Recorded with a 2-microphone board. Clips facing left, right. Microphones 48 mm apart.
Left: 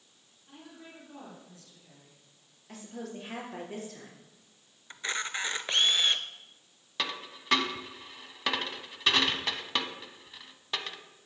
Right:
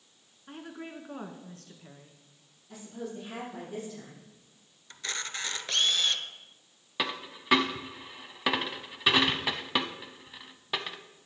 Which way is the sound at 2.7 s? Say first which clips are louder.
Right 1 dB; 70° left (ahead or behind).